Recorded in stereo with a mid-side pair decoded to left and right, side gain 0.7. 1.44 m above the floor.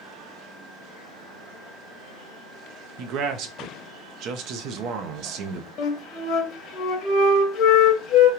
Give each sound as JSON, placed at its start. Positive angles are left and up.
{"t": 3.0, "sound": "a man speaking", "azimuth_deg": -55, "distance_m": 0.6}
{"t": 5.8, "sound": "a flute", "azimuth_deg": 50, "distance_m": 0.8}